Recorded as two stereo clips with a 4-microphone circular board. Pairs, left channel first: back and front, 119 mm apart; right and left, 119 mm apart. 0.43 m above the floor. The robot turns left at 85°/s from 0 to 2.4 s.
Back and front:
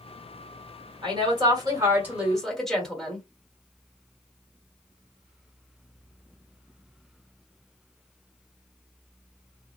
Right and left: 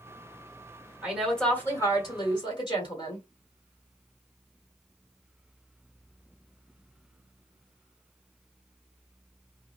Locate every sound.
1.0 s a woman speaking: 20° left, 1.5 m; by 3.2 s 95° right, 1.5 m